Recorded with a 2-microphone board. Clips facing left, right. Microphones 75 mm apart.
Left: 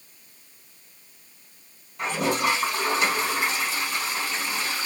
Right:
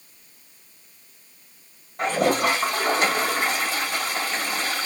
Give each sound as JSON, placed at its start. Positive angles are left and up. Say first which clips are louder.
{"t": 2.0, "sound": "a toilet flushing", "louder": "right 4 dB", "side_deg": -50, "distance_m": 1.8}